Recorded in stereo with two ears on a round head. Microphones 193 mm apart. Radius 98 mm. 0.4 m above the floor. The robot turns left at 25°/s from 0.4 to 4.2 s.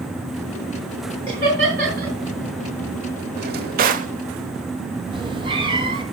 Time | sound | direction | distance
1.3 | laughter | 20° right (ahead or behind) | 5.5 m
3.4 | a drawer | 50° right (ahead or behind) | 0.9 m
5.1 | a cat meowing | 25° right (ahead or behind) | 2 m